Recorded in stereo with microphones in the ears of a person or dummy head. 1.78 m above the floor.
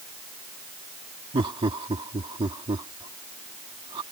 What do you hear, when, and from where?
1.3 s laughter: 30° right (ahead or behind)